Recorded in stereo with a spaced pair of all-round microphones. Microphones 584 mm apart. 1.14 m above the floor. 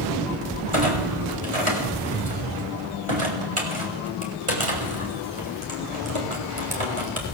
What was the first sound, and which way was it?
A clunk, 60° right (ahead or behind).